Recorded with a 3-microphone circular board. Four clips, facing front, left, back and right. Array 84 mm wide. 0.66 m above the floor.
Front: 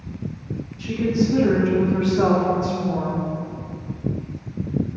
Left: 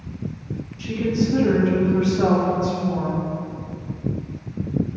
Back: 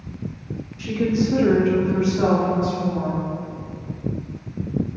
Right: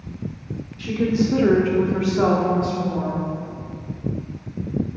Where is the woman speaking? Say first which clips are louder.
Right 2 dB, even; 130° right, 2.5 m; by 3.2 s 25° right, 2.5 m.